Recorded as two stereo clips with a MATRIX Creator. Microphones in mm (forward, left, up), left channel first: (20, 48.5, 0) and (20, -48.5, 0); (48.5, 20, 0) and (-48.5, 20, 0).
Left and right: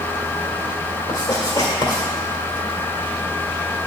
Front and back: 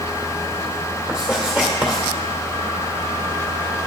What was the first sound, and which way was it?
Writing, 95° left.